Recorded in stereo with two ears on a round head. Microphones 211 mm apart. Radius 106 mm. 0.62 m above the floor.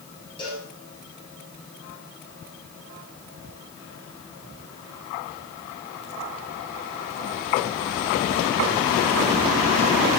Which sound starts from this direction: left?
A cowbell, at 0.4 s.